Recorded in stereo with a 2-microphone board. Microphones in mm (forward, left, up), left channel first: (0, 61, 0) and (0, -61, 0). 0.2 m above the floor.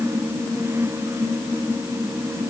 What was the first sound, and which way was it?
Only background noise.